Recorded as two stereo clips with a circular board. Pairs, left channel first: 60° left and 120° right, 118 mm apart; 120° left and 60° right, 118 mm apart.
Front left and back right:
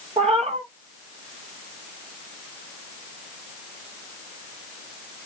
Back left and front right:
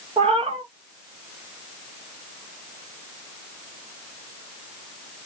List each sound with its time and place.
0.2 s a cat meowing: 90° right, 0.7 m